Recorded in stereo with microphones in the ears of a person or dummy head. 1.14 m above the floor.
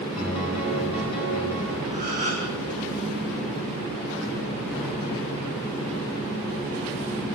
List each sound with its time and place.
0.2 s a piano: 10° right (ahead or behind), 6.5 m
1.9 s a gasp: 45° right (ahead or behind), 6.5 m